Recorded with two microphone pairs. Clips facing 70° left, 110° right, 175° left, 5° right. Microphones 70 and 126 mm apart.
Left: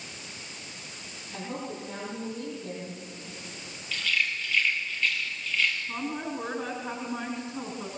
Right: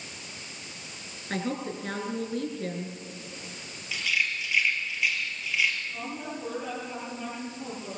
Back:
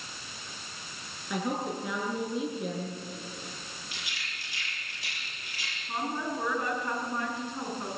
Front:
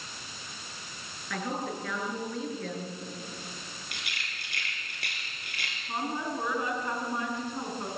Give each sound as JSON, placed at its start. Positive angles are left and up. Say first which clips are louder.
{"t": 1.3, "sound": "a woman speaking", "louder": "right 5 dB, back 2 dB", "azimuth_deg": -110, "distance_m": 6.5}
{"t": 3.9, "sound": "a rattle", "louder": "even, front 1 dB", "azimuth_deg": -30, "distance_m": 5.5}
{"t": 5.9, "sound": "a woman speaking", "louder": "left 3 dB, even", "azimuth_deg": 70, "distance_m": 5.5}